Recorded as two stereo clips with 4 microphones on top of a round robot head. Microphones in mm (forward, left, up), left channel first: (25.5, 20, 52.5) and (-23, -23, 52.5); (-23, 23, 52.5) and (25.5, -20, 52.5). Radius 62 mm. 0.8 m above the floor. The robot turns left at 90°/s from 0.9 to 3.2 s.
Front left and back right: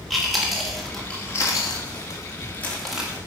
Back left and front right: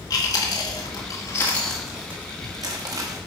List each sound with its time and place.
0.1 s chewing: 130° left, 2 m; by 3.2 s 75° right, 2 m